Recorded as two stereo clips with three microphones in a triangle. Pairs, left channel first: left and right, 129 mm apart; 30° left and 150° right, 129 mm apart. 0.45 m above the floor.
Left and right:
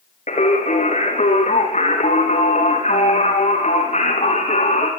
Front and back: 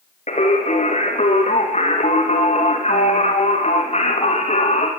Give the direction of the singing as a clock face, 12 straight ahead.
10 o'clock.